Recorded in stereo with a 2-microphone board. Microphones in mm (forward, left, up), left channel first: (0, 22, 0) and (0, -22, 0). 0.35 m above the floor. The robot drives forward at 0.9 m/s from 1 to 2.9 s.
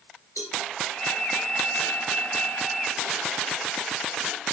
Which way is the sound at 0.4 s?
80° left.